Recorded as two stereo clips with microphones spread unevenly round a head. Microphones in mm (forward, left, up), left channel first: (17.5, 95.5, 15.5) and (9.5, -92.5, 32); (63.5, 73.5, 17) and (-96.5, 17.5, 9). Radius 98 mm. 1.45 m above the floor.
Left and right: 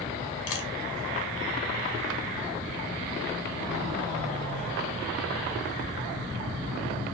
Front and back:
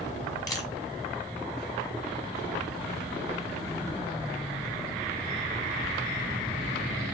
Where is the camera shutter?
90° left, 1.2 m.